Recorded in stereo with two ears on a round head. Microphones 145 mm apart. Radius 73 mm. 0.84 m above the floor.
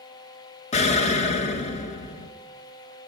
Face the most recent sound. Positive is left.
turn(degrees=40)  # may be behind; listen again after turning